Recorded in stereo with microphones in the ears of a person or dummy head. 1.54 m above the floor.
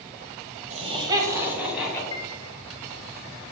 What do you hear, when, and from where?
0.7 s laughter: 40° right (ahead or behind), 1.5 m; by 2.0 s centre (ahead or behind), 2.5 m
2.1 s a piano: 25° left (ahead or behind), 1.2 m